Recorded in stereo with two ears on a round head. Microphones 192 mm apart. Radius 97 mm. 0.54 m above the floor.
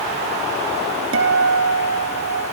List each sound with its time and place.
1.1 s a guitar: 60° right (ahead or behind), 3 m